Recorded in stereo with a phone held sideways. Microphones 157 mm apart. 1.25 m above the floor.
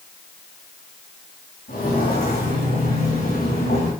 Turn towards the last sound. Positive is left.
turn(degrees=75)  # may be behind; listen again after turning